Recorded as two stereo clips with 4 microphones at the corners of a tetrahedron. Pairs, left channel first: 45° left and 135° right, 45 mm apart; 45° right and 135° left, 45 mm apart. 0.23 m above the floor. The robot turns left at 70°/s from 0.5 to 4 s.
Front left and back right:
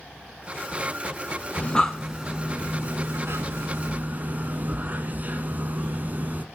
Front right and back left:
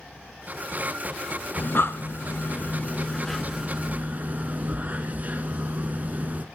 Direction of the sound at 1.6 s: 10° right.